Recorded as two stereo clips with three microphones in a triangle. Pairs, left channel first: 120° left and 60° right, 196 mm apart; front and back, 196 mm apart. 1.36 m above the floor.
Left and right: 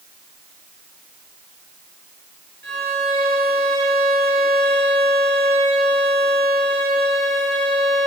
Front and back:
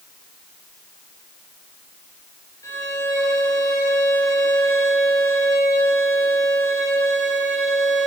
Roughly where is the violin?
Right.